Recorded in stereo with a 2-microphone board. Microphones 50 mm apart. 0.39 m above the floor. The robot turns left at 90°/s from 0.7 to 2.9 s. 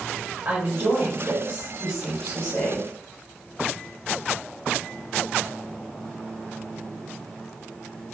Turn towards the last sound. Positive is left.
turn(degrees=110)